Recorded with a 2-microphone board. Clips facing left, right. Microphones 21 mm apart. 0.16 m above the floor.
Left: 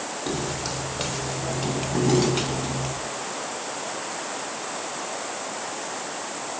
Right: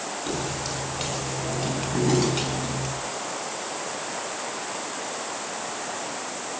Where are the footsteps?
30° left (ahead or behind), 6.5 m; by 2.9 s 10° left (ahead or behind), 6 m.